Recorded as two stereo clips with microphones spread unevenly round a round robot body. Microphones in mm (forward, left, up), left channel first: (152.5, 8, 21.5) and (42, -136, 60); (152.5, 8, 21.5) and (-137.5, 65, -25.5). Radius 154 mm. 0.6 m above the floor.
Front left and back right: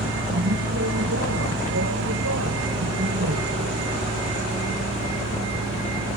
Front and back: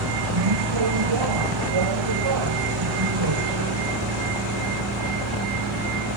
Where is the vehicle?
Straight behind; by 6.2 s 160° right.